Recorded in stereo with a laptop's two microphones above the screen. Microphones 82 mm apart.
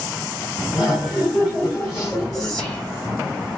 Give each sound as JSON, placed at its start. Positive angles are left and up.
{"t": 0.7, "sound": "laughter", "side_deg": -5, "distance_m": 2.0}
{"t": 2.3, "sound": "whispering", "side_deg": -50, "distance_m": 1.9}